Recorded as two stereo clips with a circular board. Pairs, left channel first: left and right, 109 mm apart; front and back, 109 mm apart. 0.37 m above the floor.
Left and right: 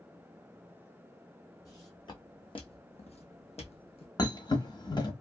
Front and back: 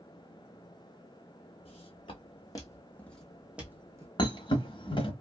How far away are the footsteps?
About 1.4 m.